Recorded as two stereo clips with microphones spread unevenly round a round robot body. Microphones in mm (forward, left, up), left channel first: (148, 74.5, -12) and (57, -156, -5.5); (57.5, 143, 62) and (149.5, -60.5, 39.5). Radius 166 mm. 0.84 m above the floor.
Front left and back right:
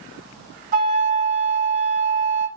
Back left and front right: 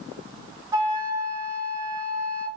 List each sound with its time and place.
0.7 s a flute: 145° right, 0.8 m